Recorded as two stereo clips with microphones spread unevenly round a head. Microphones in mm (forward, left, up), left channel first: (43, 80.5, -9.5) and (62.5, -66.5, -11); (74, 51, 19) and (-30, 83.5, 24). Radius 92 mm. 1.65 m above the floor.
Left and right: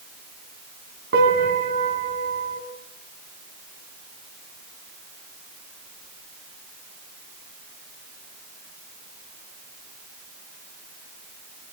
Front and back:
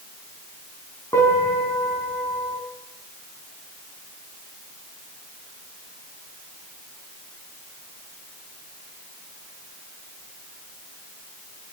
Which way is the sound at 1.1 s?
95° right.